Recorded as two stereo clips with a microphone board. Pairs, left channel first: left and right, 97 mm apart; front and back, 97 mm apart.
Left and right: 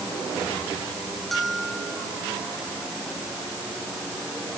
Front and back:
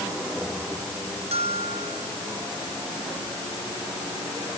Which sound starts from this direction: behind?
A bell, at 1.3 s.